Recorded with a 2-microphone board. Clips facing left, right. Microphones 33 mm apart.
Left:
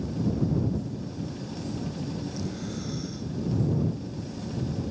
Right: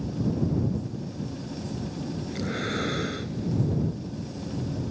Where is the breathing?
70° right (ahead or behind).